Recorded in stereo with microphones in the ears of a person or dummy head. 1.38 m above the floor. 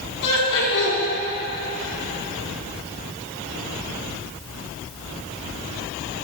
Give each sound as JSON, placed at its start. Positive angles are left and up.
{"t": 0.2, "sound": "laughter", "side_deg": 65, "distance_m": 4.0}